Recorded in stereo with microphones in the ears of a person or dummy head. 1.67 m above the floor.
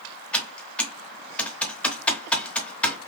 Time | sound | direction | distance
0.3 | typing on a keyboard | 15° left (ahead or behind) | 0.7 m